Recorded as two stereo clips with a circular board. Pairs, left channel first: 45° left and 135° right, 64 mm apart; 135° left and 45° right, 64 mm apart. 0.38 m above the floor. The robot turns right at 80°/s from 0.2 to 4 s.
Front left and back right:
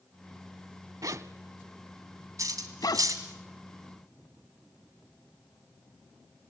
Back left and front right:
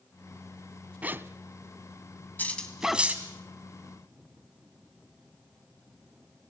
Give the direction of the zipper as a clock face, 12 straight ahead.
4 o'clock.